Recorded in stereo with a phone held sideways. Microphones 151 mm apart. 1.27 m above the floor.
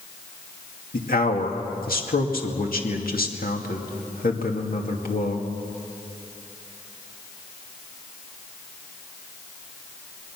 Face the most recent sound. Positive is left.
turn(degrees=75)  # may be behind; listen again after turning